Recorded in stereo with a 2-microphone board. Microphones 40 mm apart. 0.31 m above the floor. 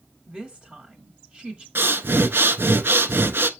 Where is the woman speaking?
30° right (ahead or behind), 1.2 m.